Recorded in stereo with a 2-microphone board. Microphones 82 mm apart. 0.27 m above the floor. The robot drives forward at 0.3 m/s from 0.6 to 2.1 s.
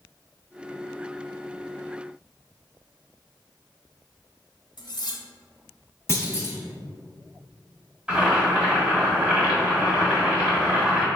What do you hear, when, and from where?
4.8 s cutlery clinking: 60° left (ahead or behind), 1.1 m
6.1 s a clunk: 30° left (ahead or behind), 1.3 m
8.1 s boiling: 15° right (ahead or behind), 1.7 m